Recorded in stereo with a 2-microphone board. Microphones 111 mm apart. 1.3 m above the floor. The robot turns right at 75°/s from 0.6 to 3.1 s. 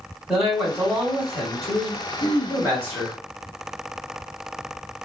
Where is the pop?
No pop in this recording.